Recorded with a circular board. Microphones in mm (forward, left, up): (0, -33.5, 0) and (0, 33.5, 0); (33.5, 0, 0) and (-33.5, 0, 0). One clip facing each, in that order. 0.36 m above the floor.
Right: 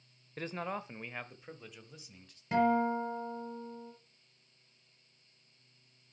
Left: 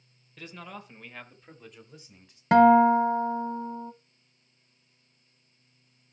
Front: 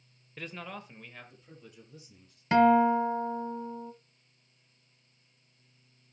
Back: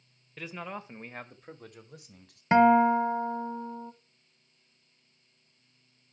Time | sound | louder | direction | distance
0.4 | a man speaking | right 5 dB, back 2 dB | 90° right | 0.9 m
2.5 | a guitar | left 12 dB, back 2 dB | 115° left | 0.8 m